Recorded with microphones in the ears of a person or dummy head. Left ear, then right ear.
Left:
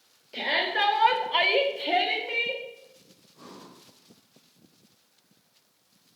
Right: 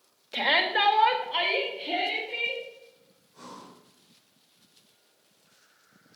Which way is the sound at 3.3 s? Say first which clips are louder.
Right 2 dB; 70° right (ahead or behind).